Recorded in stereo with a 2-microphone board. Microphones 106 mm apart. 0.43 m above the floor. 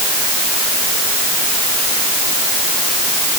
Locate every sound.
Only background noise.